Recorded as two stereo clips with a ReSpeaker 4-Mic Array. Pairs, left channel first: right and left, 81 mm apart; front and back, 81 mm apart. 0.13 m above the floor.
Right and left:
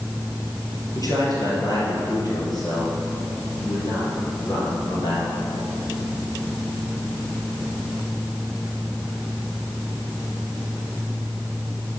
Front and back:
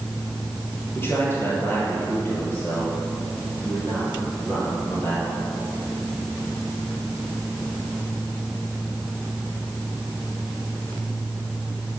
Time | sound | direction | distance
0.9 | a man speaking | 60° right | 3 m